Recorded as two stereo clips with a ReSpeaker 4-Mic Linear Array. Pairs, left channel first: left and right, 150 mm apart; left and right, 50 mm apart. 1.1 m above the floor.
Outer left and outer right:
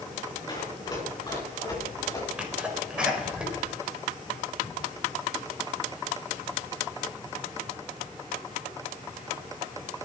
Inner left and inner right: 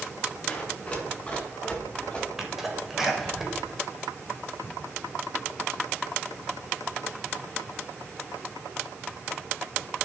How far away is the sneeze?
About 3.5 m.